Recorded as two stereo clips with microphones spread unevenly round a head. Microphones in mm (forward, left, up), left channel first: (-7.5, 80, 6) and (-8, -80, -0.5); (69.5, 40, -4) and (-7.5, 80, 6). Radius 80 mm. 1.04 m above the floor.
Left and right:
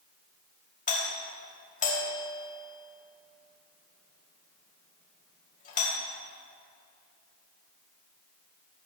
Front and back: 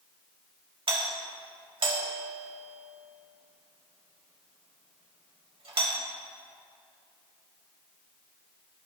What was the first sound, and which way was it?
A doorbell, 135° left.